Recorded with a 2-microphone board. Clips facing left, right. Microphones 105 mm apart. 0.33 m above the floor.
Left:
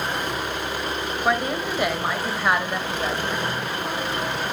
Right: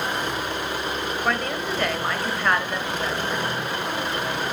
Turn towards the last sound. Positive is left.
turn(degrees=10)  # may be behind; listen again after turning